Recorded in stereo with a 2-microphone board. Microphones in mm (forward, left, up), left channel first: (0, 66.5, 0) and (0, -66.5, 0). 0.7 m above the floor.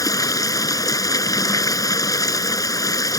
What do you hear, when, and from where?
0.0 s running water: 25° left (ahead or behind)